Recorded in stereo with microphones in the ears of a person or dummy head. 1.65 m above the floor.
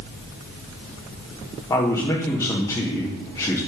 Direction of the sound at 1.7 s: 20° left (ahead or behind).